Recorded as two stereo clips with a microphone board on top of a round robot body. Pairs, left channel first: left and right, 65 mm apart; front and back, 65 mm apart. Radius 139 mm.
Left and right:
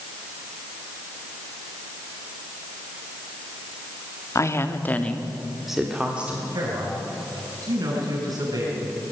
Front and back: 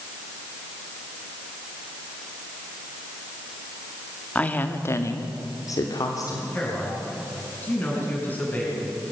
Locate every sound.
4.3 s a woman speaking: 65° left, 1.6 m; by 6.4 s 20° right, 2.5 m
6.5 s a man speaking: 65° right, 6.5 m